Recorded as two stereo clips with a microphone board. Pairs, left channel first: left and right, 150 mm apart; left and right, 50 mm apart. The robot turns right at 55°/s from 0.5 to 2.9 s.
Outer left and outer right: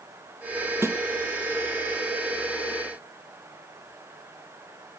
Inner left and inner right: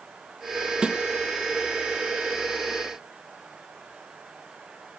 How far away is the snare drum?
About 0.8 m.